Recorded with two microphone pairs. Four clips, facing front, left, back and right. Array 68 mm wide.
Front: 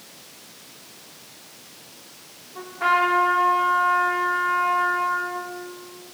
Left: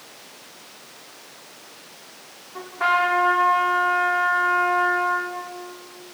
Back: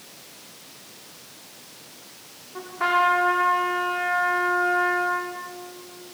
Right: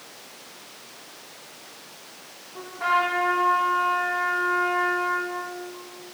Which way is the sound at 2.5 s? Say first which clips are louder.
Left 2 dB, front 1 dB; 125° left.